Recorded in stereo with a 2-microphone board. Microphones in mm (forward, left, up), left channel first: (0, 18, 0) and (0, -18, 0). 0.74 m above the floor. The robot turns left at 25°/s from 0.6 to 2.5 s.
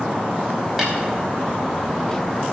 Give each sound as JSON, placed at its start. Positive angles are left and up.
{"t": 0.8, "sound": "a snare drum", "side_deg": -10, "distance_m": 4.5}